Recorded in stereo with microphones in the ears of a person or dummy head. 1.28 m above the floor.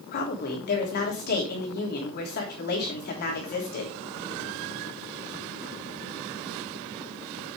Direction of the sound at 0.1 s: 55° left (ahead or behind).